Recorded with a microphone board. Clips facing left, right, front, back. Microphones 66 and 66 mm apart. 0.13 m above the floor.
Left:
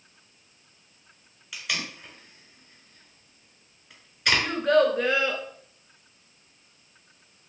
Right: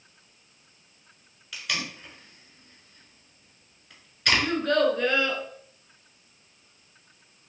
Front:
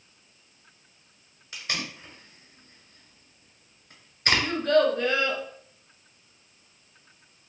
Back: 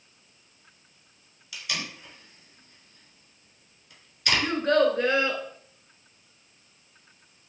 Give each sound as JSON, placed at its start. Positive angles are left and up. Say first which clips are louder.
{"t": 1.5, "sound": "tape being pulled", "louder": "even, front 1 dB", "azimuth_deg": 5, "distance_m": 1.2}
{"t": 4.4, "sound": "a child speaking", "louder": "left 3 dB, even", "azimuth_deg": 150, "distance_m": 0.8}